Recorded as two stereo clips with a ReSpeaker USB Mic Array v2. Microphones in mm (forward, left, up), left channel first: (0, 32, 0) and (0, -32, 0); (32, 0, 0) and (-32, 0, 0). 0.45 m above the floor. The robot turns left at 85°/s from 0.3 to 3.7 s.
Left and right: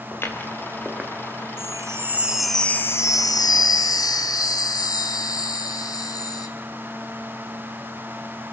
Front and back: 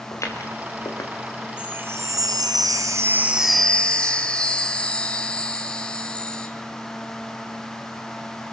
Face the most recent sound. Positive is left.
turn(degrees=75)